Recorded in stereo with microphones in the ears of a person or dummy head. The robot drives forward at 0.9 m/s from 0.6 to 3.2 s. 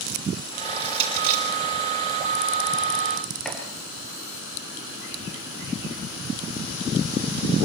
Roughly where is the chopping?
Centre.